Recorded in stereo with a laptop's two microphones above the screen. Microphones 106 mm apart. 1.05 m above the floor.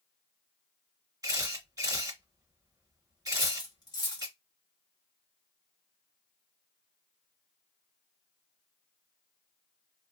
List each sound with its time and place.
1.2 s a camera shutter: 35° right (ahead or behind), 1.7 m
3.3 s cutlery clinking: 40° left (ahead or behind), 1.0 m